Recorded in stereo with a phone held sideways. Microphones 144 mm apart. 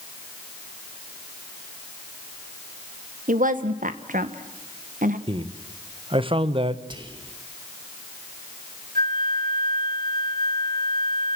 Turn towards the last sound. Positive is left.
turn(degrees=-80)